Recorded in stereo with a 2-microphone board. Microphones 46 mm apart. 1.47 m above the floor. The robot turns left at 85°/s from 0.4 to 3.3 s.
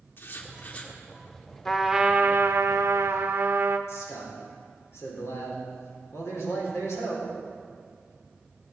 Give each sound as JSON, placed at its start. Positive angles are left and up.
{"t": 0.2, "sound": "writing", "azimuth_deg": 60, "distance_m": 1.8}
{"t": 1.6, "sound": "a trumpet", "azimuth_deg": 5, "distance_m": 0.8}
{"t": 3.9, "sound": "a man speaking", "side_deg": 85, "distance_m": 4.0}